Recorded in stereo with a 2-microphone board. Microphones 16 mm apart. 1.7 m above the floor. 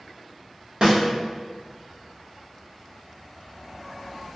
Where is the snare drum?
50° right (ahead or behind), 1.1 m.